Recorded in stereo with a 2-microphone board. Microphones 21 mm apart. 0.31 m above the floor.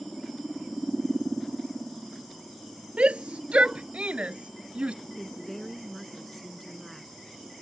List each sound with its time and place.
3.0 s a shout: 80° right; by 5.0 s 70° right (ahead or behind)
5.2 s a woman speaking: 15° left (ahead or behind)